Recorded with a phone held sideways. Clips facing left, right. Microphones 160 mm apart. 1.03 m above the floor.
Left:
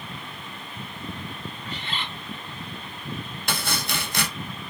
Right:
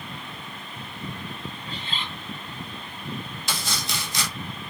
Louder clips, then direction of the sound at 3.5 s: Left 4 dB; 60° left (ahead or behind).